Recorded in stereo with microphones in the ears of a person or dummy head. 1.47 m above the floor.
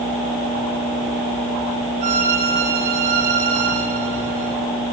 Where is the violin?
40° right (ahead or behind), 1.7 m.